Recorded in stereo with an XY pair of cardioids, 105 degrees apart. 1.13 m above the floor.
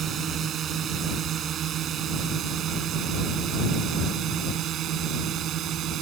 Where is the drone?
60° right; by 6.0 s 75° right.